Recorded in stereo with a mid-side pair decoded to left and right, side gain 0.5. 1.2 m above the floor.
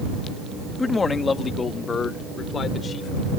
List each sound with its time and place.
0.8 s a man speaking: 25° left; by 3.3 s 45° left